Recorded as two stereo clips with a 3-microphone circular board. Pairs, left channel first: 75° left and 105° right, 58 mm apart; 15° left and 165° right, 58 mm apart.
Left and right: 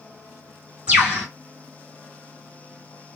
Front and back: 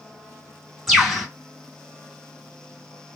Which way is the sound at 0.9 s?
70° right.